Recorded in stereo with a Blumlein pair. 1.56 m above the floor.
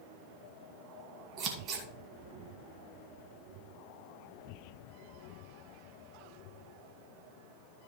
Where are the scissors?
30° right, 2 m.